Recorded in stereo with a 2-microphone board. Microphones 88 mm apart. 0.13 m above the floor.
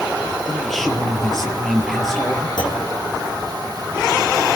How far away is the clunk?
About 3.5 m.